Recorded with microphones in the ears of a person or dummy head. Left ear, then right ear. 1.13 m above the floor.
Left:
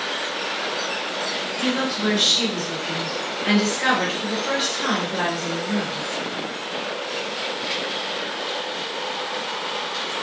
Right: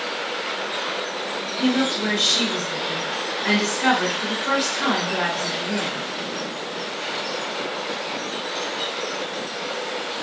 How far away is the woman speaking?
About 1.6 m.